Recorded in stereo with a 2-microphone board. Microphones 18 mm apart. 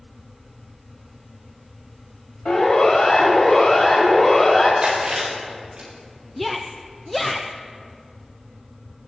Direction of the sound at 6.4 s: 5° left (ahead or behind).